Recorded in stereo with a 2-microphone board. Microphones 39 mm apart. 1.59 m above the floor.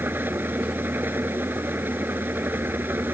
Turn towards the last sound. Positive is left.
turn(degrees=-60)  # may be behind; listen again after turning